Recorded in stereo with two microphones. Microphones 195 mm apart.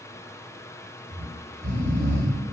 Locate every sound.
1.1 s snoring: 55° right (ahead or behind), 2.5 m